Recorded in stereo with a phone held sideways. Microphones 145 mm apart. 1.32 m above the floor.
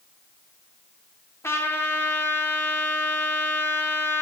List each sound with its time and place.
1.4 s a trumpet: 20° left (ahead or behind), 1.0 m